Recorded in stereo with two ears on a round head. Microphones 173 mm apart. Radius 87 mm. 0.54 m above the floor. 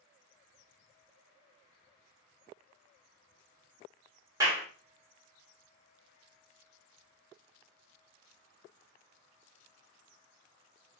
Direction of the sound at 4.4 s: 20° right (ahead or behind).